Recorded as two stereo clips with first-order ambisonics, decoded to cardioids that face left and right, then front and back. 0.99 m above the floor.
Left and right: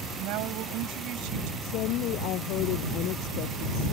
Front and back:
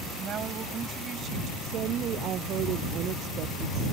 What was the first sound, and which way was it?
A woman speaking, 120° right.